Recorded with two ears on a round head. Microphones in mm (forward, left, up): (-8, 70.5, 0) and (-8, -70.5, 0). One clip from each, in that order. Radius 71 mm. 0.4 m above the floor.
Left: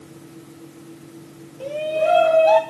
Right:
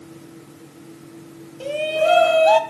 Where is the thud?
No thud in this recording.